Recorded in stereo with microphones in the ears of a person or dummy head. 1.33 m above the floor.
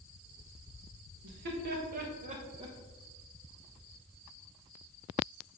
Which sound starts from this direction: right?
Laughter, at 1.2 s.